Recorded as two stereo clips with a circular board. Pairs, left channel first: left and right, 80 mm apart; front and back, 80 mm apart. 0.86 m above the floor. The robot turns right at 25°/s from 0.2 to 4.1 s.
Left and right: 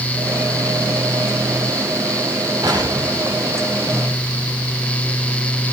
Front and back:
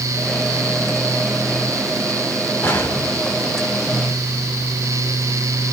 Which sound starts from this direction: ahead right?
An explosion, at 2.6 s.